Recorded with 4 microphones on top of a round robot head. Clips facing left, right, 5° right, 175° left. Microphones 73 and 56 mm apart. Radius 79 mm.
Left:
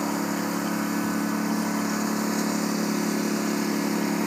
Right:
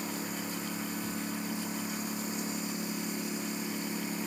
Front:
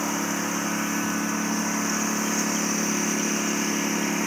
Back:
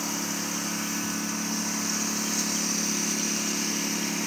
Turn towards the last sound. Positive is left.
turn(degrees=60)